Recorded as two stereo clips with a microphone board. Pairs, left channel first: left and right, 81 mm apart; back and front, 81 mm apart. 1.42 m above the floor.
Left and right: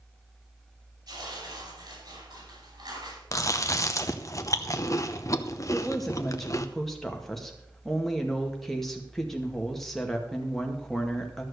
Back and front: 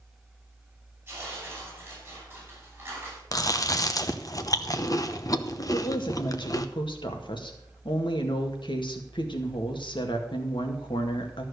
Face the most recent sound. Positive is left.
turn(degrees=175)